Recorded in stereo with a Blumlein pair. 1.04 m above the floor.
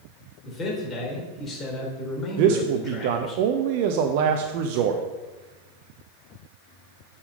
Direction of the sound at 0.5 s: 25° left.